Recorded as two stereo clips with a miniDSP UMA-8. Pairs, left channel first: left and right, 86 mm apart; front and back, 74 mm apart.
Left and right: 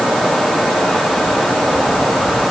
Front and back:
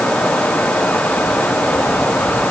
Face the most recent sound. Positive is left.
No sound to turn to.